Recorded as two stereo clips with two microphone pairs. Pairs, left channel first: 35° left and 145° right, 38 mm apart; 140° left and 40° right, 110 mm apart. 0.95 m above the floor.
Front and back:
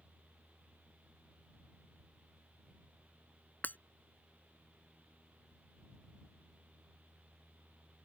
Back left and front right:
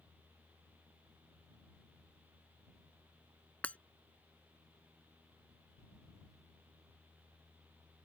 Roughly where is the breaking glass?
Ahead left.